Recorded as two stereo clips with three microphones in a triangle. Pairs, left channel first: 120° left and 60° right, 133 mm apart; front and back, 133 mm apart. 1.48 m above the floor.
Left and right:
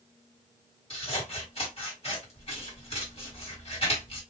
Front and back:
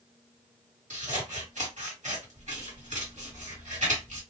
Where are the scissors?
160° left, 1.4 m.